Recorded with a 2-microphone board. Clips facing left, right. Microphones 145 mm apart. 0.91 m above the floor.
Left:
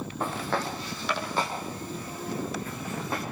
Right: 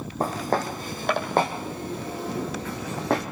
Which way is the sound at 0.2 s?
40° right (ahead or behind).